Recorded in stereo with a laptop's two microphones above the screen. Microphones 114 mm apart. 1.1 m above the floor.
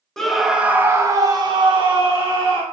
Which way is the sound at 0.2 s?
5° left (ahead or behind).